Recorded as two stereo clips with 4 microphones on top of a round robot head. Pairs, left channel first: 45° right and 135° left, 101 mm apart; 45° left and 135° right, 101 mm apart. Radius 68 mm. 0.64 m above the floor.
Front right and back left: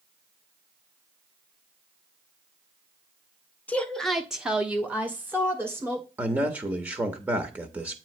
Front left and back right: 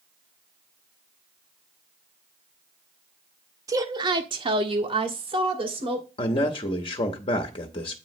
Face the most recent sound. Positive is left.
turn(degrees=65)